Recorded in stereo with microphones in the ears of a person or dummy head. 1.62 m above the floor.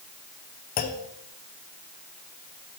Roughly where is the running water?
No running water in this recording.